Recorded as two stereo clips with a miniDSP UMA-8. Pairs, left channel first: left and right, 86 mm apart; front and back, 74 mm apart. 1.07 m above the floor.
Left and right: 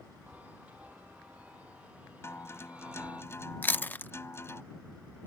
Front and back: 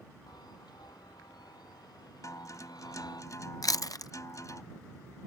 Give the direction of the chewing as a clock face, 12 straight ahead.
11 o'clock.